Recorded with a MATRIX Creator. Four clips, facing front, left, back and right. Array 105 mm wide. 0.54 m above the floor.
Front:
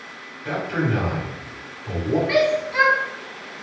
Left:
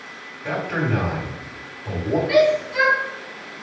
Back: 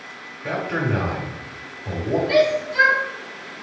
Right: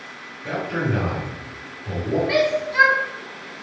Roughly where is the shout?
Ahead right.